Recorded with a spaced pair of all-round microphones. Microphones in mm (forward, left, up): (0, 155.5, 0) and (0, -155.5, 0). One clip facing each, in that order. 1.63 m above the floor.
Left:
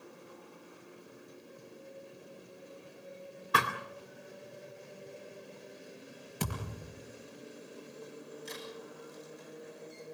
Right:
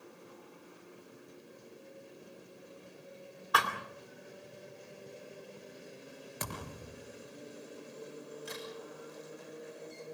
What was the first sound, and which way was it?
A thud, 30° left (ahead or behind).